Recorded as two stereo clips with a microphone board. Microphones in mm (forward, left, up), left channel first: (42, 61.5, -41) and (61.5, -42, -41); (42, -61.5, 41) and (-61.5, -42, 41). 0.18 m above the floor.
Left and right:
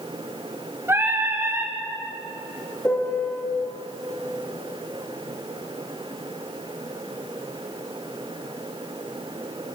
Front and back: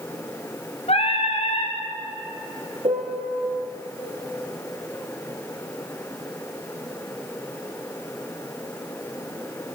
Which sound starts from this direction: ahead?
Singing, at 0.9 s.